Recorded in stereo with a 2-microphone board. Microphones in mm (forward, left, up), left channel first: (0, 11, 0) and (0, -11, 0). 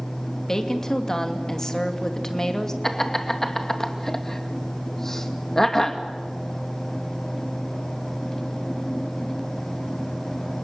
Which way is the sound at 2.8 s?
15° left (ahead or behind).